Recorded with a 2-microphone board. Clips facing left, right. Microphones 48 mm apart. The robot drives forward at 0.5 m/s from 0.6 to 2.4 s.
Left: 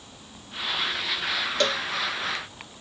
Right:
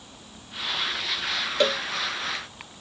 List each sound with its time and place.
1.6 s a cowbell: 15° right (ahead or behind)